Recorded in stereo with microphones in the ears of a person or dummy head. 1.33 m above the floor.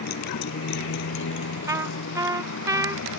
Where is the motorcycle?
55° left (ahead or behind); by 3.2 s 80° left.